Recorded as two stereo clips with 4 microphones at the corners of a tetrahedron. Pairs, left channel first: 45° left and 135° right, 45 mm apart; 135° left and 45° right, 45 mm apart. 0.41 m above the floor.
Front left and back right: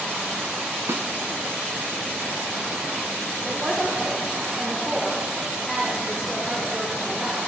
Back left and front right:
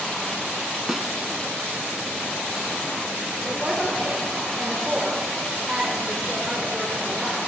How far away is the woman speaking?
About 1.4 m.